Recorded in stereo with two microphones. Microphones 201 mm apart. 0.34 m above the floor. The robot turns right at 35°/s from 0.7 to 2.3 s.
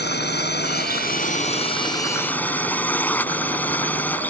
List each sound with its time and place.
0.0 s a drone: 115° left; by 4.3 s 170° left